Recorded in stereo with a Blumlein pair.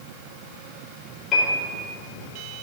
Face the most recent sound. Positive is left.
turn(degrees=25)